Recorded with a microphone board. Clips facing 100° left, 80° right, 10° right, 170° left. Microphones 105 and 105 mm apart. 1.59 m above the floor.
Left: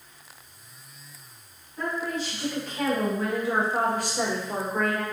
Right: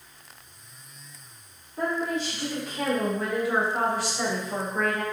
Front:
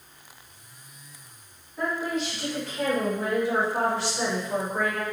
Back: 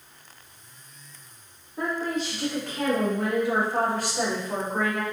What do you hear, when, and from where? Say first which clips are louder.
1.8 s a woman speaking: right 2 dB, even; 140° right, 1.1 m; by 5.0 s 110° left, 1.2 m